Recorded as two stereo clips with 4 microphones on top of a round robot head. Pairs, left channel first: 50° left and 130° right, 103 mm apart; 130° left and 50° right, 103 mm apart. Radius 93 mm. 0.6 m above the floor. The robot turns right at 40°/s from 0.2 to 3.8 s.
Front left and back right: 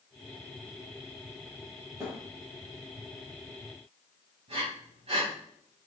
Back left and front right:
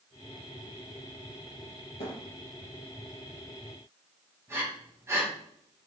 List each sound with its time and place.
2.0 s a thud: 165° left, 4.5 m; by 2.2 s 175° left, 4.5 m
4.5 s breathing: 110° right, 5 m